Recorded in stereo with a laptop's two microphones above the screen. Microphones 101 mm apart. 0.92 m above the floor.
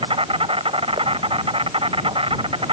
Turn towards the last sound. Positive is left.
turn(degrees=-60)  # may be behind; listen again after turning